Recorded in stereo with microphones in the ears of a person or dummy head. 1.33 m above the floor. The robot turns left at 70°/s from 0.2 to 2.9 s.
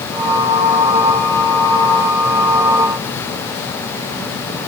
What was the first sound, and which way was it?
Only background noise.